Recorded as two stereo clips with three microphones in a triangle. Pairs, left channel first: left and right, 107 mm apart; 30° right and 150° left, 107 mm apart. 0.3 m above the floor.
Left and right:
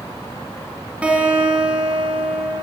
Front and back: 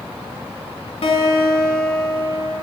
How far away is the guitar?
About 1.0 m.